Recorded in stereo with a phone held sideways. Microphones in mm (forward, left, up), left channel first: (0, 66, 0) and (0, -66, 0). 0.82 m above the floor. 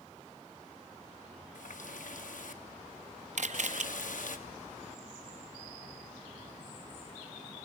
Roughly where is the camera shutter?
Right.